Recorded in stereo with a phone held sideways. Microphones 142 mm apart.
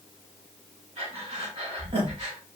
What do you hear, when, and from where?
1.0 s breathing: 45° right (ahead or behind), 2 m